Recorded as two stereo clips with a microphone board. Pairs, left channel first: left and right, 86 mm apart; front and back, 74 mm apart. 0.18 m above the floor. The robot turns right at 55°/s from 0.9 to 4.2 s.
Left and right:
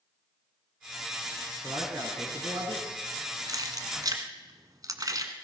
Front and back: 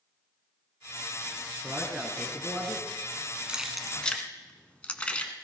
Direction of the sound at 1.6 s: 130° right.